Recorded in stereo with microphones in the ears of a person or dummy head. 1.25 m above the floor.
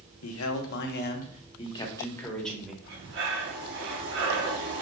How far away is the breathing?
About 0.9 m.